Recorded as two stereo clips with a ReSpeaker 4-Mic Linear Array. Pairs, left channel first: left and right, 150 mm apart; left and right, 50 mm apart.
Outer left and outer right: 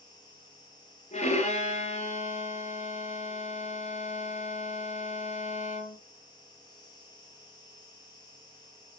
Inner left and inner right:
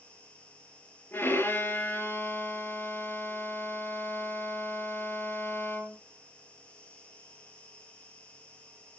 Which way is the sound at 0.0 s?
30° left (ahead or behind).